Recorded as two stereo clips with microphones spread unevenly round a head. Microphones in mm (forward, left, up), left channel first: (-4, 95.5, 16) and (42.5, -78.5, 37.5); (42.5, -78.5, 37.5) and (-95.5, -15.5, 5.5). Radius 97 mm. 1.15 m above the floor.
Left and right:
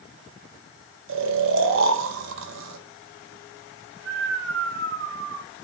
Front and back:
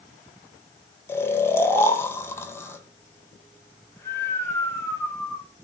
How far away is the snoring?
About 0.6 m.